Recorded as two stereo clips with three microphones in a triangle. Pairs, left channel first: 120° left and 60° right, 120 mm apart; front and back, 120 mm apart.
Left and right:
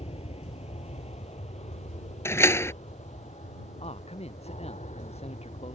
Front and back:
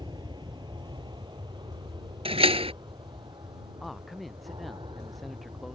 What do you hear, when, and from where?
0.0 s an aircraft: 135° left; by 5.8 s 130° left
2.2 s a door slam: straight behind
3.8 s a man speaking: 90° left